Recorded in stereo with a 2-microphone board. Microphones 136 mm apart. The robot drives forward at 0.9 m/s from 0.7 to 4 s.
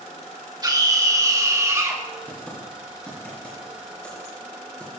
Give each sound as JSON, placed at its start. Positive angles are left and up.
{"t": 0.6, "sound": "a scream", "side_deg": -30, "distance_m": 3.0}
{"t": 2.3, "sound": "typing on a keyboard", "side_deg": 10, "distance_m": 5.5}